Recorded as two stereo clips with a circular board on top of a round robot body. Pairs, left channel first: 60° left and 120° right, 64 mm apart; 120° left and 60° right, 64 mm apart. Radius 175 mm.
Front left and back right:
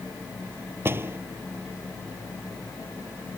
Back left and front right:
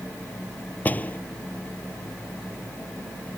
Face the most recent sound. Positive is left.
turn(degrees=-175)